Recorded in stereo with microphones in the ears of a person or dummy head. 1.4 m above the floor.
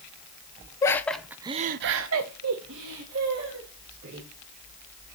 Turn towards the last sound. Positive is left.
turn(degrees=-65)  # may be behind; listen again after turning